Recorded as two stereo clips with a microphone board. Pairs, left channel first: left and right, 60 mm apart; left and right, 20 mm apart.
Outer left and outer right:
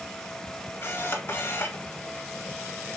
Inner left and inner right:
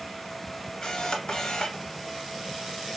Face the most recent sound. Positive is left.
turn(degrees=35)  # may be behind; listen again after turning